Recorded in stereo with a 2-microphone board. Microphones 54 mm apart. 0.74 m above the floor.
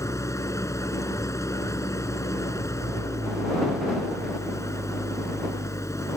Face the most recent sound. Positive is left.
turn(degrees=80)